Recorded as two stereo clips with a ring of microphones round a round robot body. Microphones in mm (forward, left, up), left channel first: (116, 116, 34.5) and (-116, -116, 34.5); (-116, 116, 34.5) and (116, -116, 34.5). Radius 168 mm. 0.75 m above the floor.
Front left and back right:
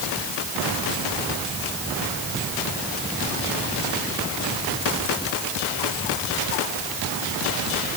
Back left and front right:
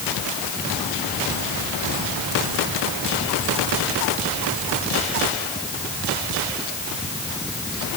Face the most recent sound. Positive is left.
No sound to turn to.